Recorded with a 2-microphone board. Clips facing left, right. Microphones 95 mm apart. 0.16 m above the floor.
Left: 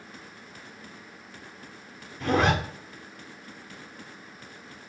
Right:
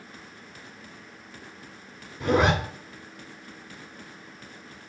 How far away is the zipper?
About 1.0 m.